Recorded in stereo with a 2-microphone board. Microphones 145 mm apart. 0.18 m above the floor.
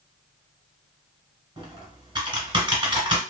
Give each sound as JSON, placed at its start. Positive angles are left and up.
{"t": 1.6, "sound": "typing on a keyboard", "side_deg": -30, "distance_m": 1.3}